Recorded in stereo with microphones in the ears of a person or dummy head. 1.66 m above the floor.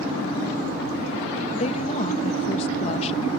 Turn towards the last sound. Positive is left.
turn(degrees=30)  # may be behind; listen again after turning